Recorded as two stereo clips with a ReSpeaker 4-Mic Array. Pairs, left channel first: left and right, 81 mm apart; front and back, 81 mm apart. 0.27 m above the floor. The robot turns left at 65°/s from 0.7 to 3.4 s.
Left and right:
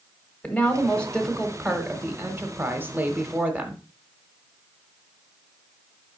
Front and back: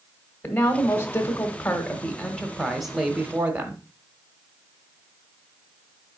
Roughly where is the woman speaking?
Ahead left.